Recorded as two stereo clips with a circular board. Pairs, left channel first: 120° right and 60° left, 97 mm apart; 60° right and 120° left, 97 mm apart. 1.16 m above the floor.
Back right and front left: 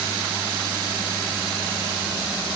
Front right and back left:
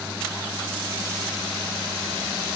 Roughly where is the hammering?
No hammering in this recording.